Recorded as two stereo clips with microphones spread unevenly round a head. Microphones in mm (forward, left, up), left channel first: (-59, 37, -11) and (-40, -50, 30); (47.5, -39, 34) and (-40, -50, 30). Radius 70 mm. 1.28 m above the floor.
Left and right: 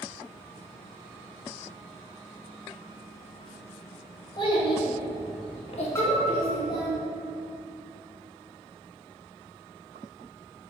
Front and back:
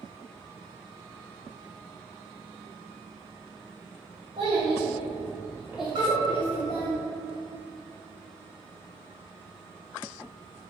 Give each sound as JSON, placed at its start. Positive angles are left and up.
{"t": 4.4, "sound": "a child speaking", "azimuth_deg": 135, "distance_m": 1.3}
{"t": 6.0, "sound": "a piano", "azimuth_deg": -175, "distance_m": 0.7}